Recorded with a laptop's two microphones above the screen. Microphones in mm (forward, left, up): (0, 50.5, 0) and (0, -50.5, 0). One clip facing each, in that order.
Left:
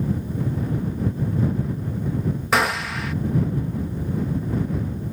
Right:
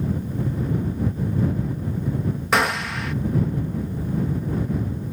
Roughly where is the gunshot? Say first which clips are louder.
Even; centre.